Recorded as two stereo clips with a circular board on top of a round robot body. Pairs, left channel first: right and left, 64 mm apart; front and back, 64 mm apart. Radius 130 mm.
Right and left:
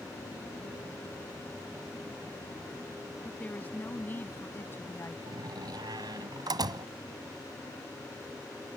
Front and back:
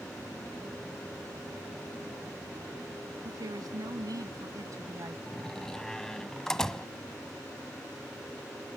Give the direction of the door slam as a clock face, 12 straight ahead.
9 o'clock.